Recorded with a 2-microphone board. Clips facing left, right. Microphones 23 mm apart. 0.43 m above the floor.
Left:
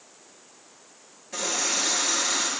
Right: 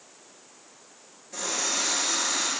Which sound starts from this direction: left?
A running tap, at 1.3 s.